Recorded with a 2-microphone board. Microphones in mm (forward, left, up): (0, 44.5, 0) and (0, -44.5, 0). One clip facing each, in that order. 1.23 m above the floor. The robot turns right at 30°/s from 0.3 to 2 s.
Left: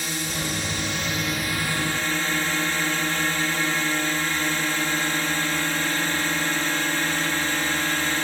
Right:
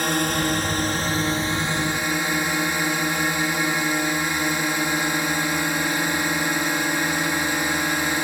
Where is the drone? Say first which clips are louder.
Right 8 dB; 65° right; by 8.2 s 15° right.